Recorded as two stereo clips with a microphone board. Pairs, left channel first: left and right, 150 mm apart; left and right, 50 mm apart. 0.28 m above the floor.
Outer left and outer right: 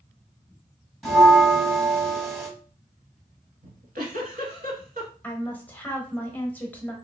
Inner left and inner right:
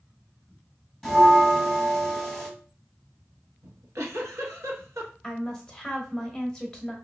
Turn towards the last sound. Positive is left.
turn(degrees=10)  # may be behind; listen again after turning